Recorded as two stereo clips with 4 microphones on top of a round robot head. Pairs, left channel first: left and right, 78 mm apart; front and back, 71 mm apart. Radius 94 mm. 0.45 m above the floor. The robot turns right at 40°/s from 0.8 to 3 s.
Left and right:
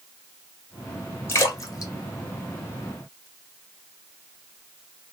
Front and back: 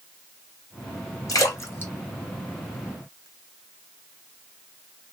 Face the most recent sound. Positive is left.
turn(degrees=105)